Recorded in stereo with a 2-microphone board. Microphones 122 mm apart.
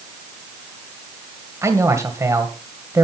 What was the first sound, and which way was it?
A man speaking, 25° right (ahead or behind).